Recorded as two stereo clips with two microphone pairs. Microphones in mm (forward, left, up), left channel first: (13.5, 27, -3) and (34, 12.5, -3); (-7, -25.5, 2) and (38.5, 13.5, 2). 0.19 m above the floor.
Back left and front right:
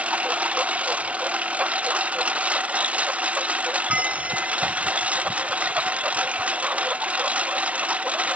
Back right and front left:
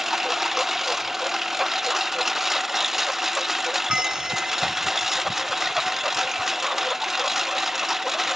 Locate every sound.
0.0 s a lawn mower: 45° right
3.9 s a bell: 35° right